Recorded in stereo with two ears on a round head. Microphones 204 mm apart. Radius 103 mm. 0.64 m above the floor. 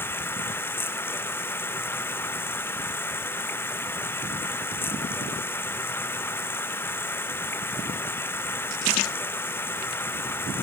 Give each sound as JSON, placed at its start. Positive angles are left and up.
{"t": 0.0, "sound": "running water", "side_deg": 10}